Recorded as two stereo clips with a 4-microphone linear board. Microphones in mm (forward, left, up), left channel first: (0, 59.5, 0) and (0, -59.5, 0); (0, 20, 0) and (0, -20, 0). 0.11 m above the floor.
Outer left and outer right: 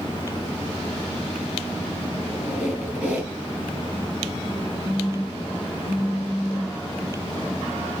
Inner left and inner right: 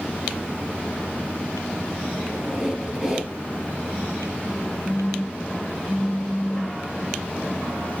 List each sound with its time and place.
2.2 s a squeak: 15° right (ahead or behind), 1.3 m
4.8 s a phone buzzing: 60° right (ahead or behind), 1.1 m